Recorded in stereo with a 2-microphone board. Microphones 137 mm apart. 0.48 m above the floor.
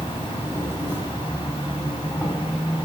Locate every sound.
0.0 s an insect: 15° right (ahead or behind), 1.1 m